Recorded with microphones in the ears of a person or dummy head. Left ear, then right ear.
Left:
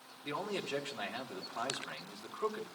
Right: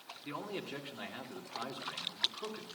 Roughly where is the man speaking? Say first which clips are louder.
Left 4 dB; centre.